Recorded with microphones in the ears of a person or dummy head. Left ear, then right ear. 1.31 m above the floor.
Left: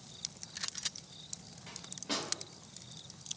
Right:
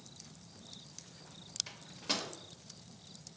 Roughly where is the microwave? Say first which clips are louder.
Left 2 dB; right.